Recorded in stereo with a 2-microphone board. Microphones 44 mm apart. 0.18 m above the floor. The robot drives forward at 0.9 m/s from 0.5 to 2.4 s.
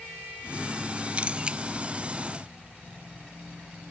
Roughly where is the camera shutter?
Right.